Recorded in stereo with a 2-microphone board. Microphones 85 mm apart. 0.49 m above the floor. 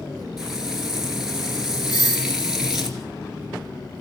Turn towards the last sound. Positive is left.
turn(degrees=45)  # may be behind; listen again after turning